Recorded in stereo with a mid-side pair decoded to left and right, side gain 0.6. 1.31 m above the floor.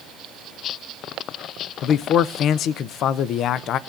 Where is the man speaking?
55° left, 0.7 m.